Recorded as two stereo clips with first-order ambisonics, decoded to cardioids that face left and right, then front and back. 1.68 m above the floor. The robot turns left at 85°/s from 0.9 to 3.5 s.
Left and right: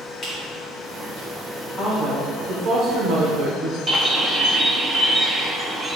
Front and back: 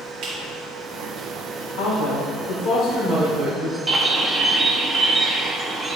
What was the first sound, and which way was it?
A squeak, 150° left.